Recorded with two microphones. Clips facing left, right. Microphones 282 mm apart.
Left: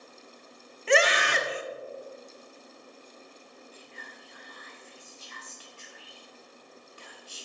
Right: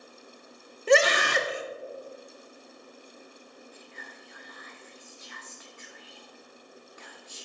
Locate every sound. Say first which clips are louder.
0.9 s a scream: right 3 dB; 45° right (ahead or behind), 1.2 m
3.7 s whispering: right 1 dB; 35° left (ahead or behind), 0.9 m